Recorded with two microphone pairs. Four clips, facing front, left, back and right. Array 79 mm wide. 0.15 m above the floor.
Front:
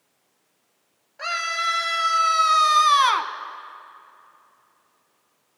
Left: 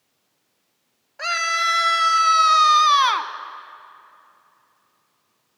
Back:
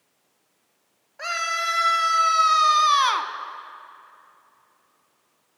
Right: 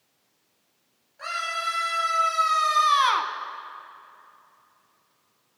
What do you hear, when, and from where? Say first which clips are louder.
1.2 s a scream: left 7 dB, even; 110° left, 2.5 m; by 3.3 s 10° left, 1.1 m